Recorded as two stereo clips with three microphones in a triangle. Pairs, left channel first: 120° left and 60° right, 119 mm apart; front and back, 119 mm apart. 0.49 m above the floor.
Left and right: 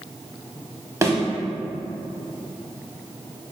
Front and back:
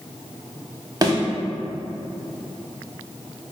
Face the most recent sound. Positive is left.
turn(degrees=-125)